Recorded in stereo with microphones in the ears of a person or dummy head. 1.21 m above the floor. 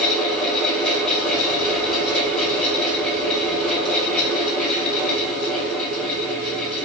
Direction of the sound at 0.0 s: Centre (ahead or behind).